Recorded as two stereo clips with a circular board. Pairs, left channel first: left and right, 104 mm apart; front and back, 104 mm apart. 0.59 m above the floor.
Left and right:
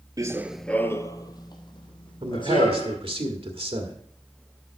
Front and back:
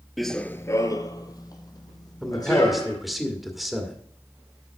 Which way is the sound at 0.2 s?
90° right.